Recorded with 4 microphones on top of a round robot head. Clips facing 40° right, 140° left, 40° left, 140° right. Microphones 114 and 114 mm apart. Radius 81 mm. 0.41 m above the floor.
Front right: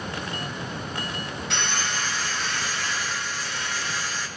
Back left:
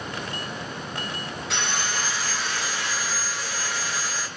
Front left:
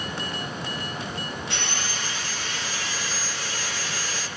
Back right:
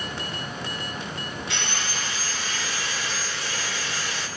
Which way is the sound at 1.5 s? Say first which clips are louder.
Back left 1 dB, even; 130° right.